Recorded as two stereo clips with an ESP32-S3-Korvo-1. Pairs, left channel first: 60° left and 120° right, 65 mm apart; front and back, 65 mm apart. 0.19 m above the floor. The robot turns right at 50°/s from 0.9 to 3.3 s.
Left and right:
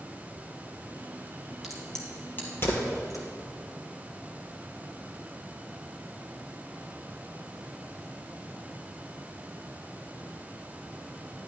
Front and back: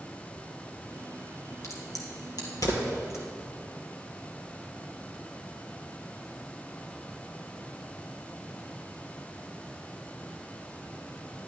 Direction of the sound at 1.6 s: 35° right.